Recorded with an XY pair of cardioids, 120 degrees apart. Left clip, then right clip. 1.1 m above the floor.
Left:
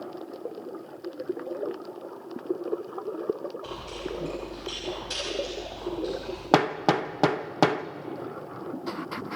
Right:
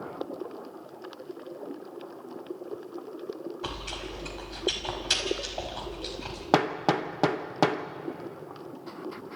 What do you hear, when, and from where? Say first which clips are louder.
3.6 s chewing: even; 60° right, 5.5 m
6.5 s hammering: left 2 dB; 10° left, 0.7 m